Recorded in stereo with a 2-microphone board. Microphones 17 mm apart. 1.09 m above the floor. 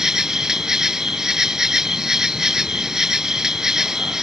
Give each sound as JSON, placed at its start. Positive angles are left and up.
{"t": 0.0, "sound": "an insect", "side_deg": -35}